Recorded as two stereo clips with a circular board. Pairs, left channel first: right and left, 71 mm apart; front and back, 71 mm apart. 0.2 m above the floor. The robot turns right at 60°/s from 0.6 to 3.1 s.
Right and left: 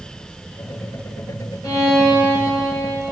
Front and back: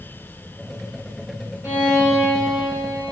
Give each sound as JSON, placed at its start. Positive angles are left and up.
{"t": 1.6, "sound": "a violin", "azimuth_deg": -125, "distance_m": 2.5}